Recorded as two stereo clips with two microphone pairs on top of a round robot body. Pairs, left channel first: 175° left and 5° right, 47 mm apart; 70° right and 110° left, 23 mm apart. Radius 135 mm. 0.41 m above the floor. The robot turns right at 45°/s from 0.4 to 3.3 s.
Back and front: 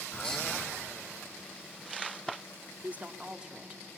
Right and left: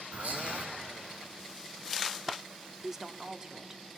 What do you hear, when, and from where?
0.1 s whispering: 100° left, 5.5 m; by 0.7 s 110° left, 5.5 m
2.8 s a woman speaking: 45° left, 1.2 m; by 3.8 s 70° left, 1.2 m